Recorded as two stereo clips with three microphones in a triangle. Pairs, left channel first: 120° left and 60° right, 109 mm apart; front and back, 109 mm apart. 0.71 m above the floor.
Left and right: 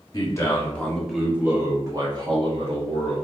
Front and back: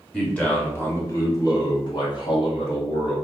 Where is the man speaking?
80° left, 1.4 m; by 3.1 s 40° right, 2 m.